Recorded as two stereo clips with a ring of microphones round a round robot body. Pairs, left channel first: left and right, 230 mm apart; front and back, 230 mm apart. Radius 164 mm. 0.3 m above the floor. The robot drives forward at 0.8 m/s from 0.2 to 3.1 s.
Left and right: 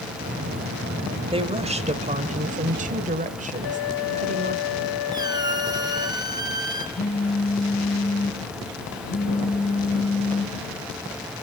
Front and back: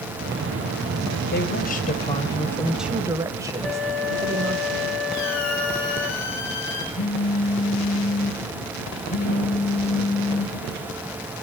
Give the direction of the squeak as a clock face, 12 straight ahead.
1 o'clock.